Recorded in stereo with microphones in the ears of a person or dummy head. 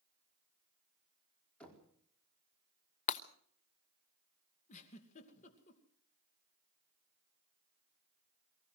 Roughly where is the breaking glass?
Left.